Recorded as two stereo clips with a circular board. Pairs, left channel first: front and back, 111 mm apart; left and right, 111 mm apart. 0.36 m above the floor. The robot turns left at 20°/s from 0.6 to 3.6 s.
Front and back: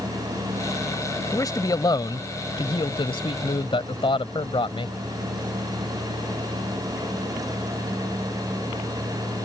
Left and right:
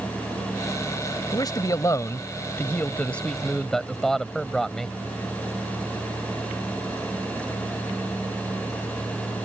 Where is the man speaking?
50° left; by 5.0 s 5° left.